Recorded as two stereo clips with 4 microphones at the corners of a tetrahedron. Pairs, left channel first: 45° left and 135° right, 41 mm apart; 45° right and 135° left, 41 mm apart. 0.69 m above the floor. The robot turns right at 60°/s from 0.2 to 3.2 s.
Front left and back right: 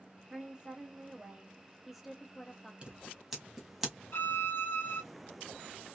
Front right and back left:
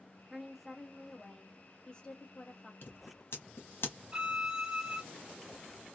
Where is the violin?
65° left, 0.8 m.